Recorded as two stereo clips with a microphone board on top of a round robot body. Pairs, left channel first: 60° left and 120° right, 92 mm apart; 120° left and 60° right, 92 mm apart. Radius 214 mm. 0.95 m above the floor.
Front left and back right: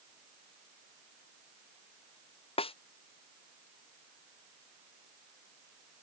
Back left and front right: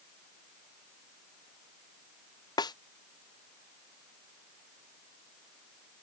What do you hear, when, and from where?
2.6 s a snare drum: 75° left